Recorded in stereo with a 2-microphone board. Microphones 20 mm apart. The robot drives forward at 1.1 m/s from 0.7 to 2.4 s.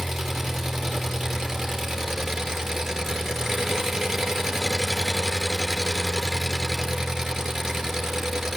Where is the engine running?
10° right (ahead or behind), 5.5 m; by 8.6 s 15° right (ahead or behind), 3.5 m.